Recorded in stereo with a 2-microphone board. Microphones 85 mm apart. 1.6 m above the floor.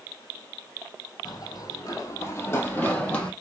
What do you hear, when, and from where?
1.2 s running footsteps: 50° left (ahead or behind), 2.5 m; by 3.3 s 10° left (ahead or behind), 3 m